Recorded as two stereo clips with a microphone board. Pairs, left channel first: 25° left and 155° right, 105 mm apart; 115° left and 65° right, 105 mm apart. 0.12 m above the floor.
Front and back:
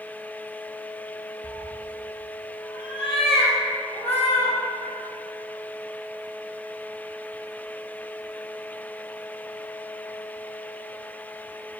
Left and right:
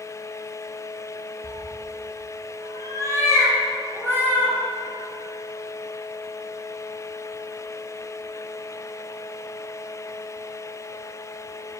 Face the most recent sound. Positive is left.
turn(degrees=5)